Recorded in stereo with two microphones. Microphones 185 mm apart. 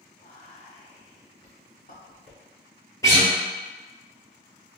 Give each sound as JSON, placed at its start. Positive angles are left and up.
{"t": 0.2, "sound": "whispering", "side_deg": 60, "distance_m": 1.8}
{"t": 3.0, "sound": "a guitar", "side_deg": 15, "distance_m": 1.2}